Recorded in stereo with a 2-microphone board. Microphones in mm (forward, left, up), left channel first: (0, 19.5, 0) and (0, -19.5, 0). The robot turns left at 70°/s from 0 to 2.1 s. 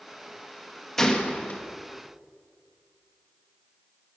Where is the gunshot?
170° left, 1.0 m; by 1.6 s 125° left, 1.0 m.